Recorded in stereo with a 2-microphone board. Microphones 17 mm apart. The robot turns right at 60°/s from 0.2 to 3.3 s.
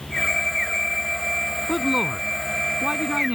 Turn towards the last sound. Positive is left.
turn(degrees=-80)